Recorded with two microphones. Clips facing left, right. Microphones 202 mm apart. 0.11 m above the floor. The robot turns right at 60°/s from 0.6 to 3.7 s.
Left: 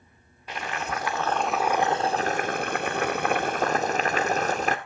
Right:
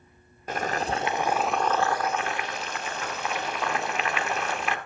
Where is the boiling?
55° right, 1.0 m; by 4.8 s 135° left, 1.0 m.